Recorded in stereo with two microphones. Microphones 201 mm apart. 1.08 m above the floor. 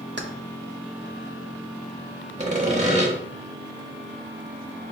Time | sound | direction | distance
0.2 | keys jangling | 60° right (ahead or behind) | 0.6 m
2.4 | sawing | 35° right (ahead or behind) | 1.0 m